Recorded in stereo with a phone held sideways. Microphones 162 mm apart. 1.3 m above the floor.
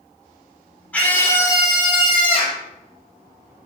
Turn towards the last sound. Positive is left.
turn(degrees=40)  # may be behind; listen again after turning